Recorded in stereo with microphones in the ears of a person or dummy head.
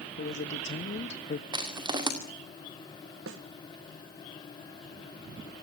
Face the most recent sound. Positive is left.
turn(degrees=-65)  # may be behind; listen again after turning